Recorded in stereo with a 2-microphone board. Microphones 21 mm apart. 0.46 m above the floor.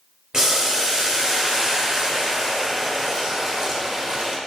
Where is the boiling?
25° right (ahead or behind), 0.8 m.